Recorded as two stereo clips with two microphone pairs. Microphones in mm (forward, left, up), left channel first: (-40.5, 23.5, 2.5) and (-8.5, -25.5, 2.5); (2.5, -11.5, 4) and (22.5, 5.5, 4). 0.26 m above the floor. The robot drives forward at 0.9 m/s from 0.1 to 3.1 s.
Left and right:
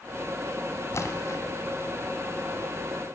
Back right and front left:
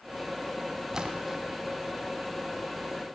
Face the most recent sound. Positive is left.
turn(degrees=150)